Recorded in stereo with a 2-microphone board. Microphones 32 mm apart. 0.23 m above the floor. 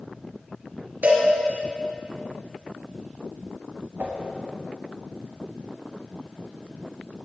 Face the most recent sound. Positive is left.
turn(degrees=-70)  # may be behind; listen again after turning